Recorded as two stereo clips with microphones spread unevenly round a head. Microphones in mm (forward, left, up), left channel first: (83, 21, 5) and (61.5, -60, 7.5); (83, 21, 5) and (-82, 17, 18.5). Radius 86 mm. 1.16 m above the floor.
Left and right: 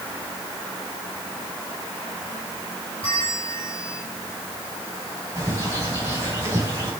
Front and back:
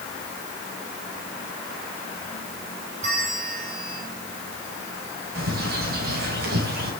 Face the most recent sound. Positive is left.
turn(degrees=150)